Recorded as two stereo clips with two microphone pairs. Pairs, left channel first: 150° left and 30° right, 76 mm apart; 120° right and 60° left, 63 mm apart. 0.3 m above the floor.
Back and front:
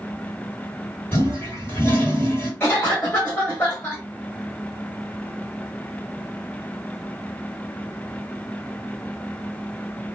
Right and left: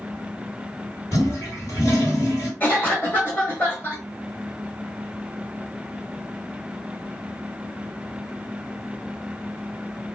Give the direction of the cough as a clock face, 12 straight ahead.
5 o'clock.